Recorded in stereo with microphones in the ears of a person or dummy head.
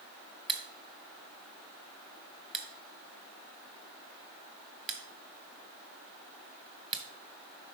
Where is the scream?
No scream in this recording.